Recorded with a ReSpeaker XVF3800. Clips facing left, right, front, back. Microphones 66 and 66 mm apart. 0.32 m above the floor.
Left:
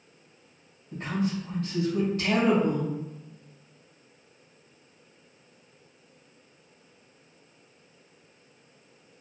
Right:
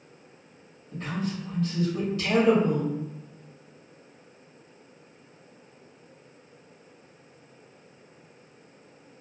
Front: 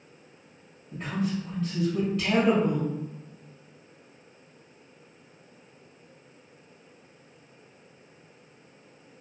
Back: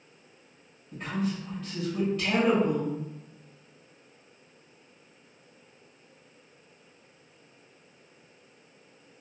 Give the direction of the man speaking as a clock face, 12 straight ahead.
9 o'clock.